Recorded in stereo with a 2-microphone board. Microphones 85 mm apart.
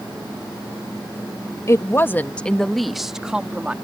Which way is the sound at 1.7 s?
35° left (ahead or behind).